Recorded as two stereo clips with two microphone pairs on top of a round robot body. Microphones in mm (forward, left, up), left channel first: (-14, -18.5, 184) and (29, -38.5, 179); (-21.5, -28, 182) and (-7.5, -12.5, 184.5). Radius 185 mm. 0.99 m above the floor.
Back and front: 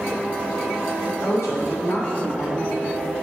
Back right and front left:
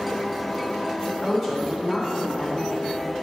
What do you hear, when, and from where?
1.1 s a woman speaking: 140° left, 3.5 m